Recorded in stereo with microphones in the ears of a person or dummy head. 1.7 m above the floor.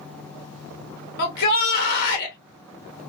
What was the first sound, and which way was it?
A shout, 55° left (ahead or behind).